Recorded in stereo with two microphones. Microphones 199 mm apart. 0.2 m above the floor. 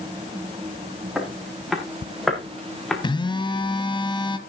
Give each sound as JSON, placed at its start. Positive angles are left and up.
{"t": 1.1, "sound": "footsteps", "side_deg": -5, "distance_m": 6.0}
{"t": 3.0, "sound": "a phone buzzing", "side_deg": 25, "distance_m": 1.5}